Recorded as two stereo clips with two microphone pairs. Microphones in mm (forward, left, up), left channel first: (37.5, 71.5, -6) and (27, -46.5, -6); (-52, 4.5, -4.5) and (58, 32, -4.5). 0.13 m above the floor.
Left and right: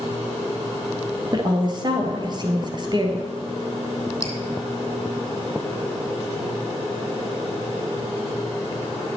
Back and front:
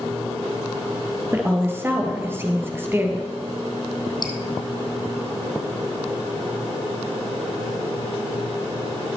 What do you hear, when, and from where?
1.3 s a woman speaking: 50° right, 2 m
4.2 s dripping: 145° left, 1.9 m